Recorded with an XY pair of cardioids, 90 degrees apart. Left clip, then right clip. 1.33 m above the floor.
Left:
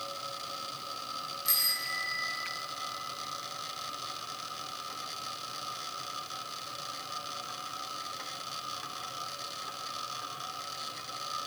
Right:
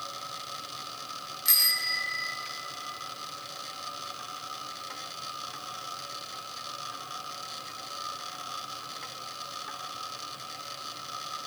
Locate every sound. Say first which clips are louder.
1.4 s a bicycle bell: right 6 dB; 45° right, 3.5 m